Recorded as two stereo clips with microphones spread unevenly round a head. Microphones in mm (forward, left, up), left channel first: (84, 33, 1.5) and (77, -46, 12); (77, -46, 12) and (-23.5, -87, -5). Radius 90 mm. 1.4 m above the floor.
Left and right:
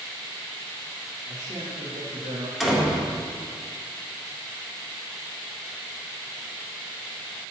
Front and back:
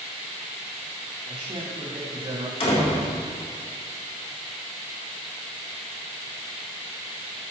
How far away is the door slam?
About 3 m.